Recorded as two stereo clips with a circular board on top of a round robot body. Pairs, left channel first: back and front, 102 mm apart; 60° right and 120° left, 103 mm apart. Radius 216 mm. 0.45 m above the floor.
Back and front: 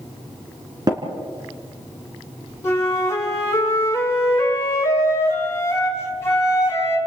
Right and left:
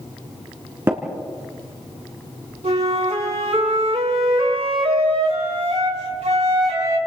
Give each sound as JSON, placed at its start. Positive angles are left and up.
{"t": 0.9, "sound": "tapping", "azimuth_deg": 55, "distance_m": 3.0}
{"t": 2.6, "sound": "a flute", "azimuth_deg": 115, "distance_m": 5.0}